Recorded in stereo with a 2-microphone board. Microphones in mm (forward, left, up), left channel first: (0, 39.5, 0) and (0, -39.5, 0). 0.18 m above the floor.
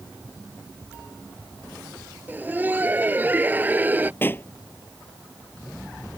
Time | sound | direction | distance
2.3 | laughter | 20° right (ahead or behind) | ?
4.2 | a pop | 25° left (ahead or behind) | ?